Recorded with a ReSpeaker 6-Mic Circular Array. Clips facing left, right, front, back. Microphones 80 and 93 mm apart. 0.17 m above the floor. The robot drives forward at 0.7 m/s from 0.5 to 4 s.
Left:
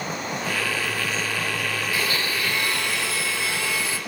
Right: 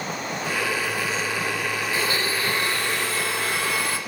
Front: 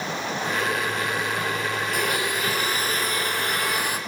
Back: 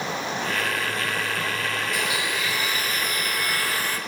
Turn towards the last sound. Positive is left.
turn(degrees=-75)